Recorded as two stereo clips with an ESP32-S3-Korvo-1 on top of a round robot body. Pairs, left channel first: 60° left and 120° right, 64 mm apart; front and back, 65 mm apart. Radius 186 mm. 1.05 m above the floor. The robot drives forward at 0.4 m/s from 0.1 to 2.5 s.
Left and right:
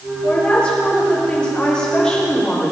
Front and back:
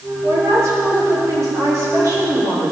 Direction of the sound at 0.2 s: 135° left.